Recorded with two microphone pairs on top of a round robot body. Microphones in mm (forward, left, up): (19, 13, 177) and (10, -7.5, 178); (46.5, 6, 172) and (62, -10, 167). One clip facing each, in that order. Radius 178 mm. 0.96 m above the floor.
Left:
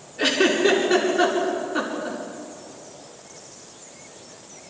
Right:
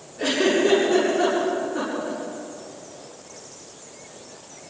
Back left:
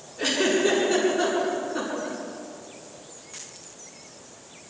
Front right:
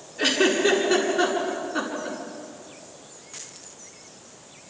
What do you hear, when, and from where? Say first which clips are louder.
0.2 s a giggle: left 1 dB, front right 2 dB; 25° left, 8 m